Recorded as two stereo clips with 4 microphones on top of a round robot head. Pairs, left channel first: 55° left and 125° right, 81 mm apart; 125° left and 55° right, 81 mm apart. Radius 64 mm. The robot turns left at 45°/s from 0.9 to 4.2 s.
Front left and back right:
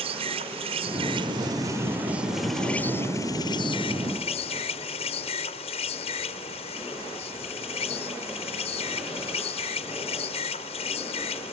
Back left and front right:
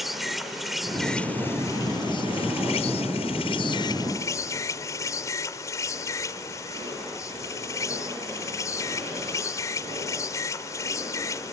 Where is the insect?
145° right; by 11.5 s 65° left.